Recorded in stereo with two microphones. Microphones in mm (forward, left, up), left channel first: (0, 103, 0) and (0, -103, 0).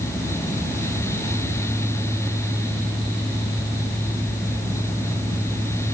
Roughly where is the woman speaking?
No woman speaking in this recording.